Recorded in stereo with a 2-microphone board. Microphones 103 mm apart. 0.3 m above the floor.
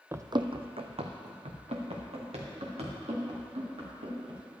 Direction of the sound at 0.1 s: 25° right (ahead or behind).